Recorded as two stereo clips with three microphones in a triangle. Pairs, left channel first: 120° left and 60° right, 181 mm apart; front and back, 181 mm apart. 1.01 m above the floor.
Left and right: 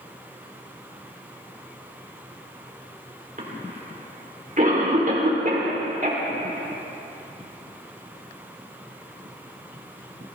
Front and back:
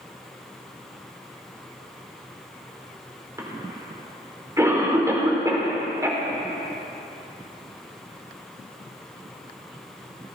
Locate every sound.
3.4 s a cough: 105° right, 3.5 m